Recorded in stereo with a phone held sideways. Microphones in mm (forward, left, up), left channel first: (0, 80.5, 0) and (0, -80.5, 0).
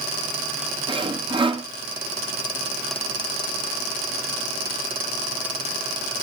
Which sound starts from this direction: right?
Sawing, at 0.9 s.